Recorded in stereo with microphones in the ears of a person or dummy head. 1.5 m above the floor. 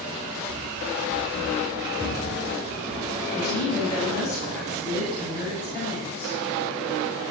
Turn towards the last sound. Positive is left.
turn(degrees=55)  # may be behind; listen again after turning